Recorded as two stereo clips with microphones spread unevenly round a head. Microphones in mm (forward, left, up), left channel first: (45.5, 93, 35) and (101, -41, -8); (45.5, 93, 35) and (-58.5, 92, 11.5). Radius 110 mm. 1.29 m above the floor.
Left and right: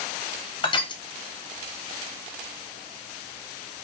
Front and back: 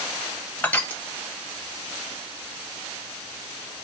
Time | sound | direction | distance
0.6 | crushing | 70° left | 0.6 m